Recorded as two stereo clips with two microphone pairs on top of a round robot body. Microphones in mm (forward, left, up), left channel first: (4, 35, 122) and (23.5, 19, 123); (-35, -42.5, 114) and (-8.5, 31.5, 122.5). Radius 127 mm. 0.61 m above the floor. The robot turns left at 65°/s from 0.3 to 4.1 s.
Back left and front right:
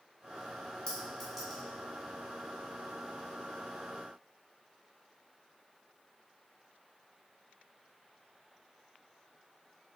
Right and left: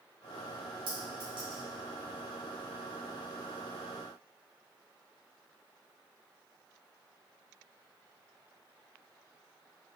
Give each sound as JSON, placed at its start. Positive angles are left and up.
{"t": 0.9, "sound": "a clink", "azimuth_deg": 85, "distance_m": 1.2}